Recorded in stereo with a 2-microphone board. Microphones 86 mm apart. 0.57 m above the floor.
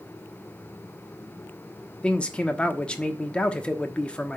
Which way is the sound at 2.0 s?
15° left (ahead or behind).